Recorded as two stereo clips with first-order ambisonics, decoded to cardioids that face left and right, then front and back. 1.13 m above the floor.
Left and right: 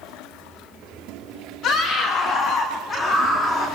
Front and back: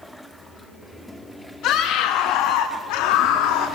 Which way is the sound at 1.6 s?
40° left.